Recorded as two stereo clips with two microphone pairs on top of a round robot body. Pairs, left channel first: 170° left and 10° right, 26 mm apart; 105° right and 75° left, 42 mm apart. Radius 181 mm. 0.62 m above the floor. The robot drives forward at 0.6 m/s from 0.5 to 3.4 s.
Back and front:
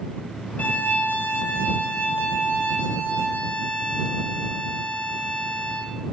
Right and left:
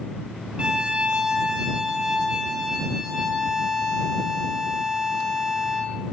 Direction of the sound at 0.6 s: 140° left.